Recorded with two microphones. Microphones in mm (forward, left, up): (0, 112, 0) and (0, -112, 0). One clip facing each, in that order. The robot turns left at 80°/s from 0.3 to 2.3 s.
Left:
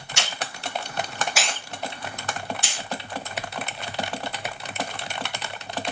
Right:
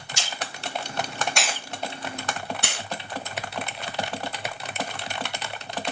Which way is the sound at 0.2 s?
70° left (ahead or behind).